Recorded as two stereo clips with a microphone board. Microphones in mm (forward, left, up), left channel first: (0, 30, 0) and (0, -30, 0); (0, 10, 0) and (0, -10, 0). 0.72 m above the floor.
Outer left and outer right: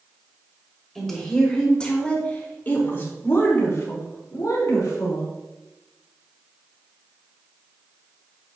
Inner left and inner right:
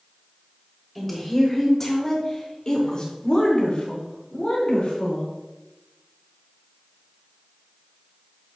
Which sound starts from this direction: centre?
A woman speaking, at 0.9 s.